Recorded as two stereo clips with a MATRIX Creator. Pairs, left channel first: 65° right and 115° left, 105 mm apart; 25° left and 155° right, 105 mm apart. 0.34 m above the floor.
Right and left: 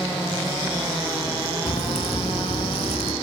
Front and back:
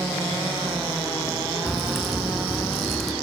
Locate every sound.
1.7 s a crack: 65° right, 1.2 m